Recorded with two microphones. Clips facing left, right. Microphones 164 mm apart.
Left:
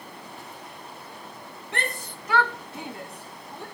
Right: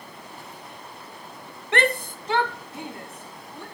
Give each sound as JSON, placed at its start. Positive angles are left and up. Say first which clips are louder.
{"t": 1.7, "sound": "a shout", "louder": "right 10 dB", "side_deg": -75, "distance_m": 0.6}